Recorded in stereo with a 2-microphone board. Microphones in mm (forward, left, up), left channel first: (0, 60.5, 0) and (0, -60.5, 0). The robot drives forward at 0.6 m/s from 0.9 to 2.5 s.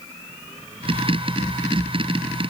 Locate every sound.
Only background noise.